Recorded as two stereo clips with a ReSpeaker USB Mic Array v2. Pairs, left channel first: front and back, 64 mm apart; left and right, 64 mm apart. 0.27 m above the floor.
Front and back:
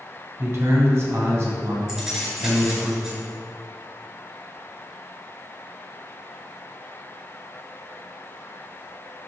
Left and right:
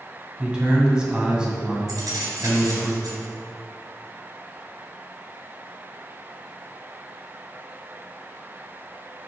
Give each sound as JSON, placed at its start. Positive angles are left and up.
{"t": 0.4, "sound": "a man speaking", "azimuth_deg": -160, "distance_m": 2.5}
{"t": 1.9, "sound": "keys jangling", "azimuth_deg": -95, "distance_m": 3.0}